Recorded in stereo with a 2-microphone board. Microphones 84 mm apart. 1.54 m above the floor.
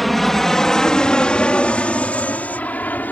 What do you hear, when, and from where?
0.0 s an aircraft: centre (ahead or behind); by 3.1 s 20° left (ahead or behind)